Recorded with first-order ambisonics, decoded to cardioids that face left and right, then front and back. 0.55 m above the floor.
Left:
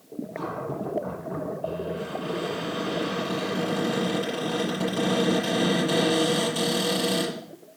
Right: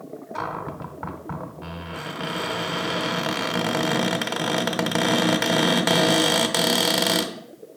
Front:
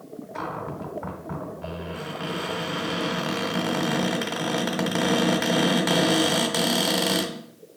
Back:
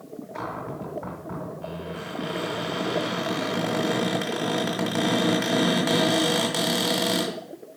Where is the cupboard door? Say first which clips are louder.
Right 2 dB, front 1 dB; 80° right, 1.6 m.